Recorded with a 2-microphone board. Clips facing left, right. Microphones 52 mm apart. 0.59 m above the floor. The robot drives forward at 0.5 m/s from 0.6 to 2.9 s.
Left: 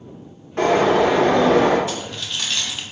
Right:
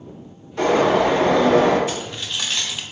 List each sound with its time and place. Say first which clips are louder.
0.6 s a bird: left 1 dB; 50° left (ahead or behind), 1.5 m; by 1.8 s 55° left (ahead or behind), 1.4 m
1.9 s keys jangling: even; 20° right (ahead or behind), 0.5 m; by 2.8 s 10° right (ahead or behind), 0.9 m